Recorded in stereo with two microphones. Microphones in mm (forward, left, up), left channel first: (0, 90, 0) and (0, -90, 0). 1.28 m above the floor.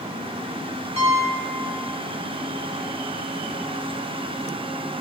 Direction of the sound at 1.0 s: 40° right (ahead or behind).